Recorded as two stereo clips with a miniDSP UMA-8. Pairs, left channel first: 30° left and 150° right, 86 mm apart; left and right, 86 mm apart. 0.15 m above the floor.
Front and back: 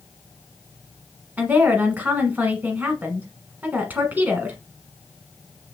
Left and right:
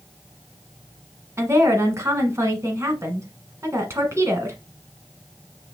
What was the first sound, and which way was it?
A woman speaking, 95° right.